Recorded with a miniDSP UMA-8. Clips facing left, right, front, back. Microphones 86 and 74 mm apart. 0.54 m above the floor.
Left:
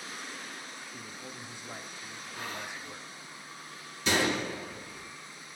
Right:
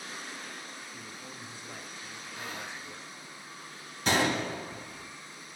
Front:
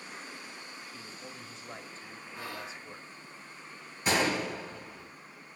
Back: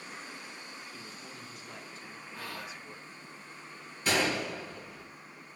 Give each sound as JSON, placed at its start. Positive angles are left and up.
{"t": 0.9, "sound": "a man speaking", "azimuth_deg": 35, "distance_m": 0.7}
{"t": 2.3, "sound": "whispering", "azimuth_deg": -15, "distance_m": 0.9}
{"t": 4.0, "sound": "a gunshot", "azimuth_deg": -70, "distance_m": 1.8}